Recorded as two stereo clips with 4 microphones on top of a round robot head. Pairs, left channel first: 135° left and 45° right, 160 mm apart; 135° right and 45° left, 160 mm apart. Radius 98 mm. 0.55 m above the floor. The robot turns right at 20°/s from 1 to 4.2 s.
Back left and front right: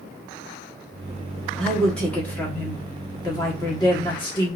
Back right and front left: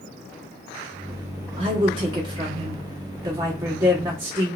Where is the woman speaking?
50° left, 1.2 m; by 4.6 s 105° left, 1.2 m.